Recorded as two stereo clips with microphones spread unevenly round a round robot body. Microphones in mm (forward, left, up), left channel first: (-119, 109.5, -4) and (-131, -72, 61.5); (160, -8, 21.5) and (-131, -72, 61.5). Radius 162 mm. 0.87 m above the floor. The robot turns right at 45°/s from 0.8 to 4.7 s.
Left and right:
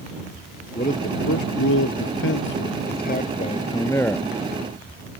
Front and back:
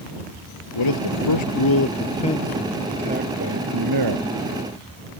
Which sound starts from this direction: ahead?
A man speaking, at 0.8 s.